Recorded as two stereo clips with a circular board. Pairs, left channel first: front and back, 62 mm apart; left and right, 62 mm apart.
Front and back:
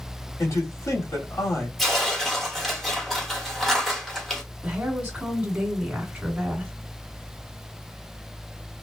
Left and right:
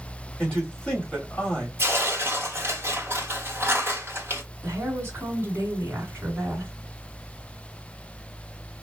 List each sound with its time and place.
0.4 s a man speaking: 20° left, 1.8 m
1.8 s tearing paper: 90° right, 1.2 m
4.6 s a woman speaking: 120° right, 1.8 m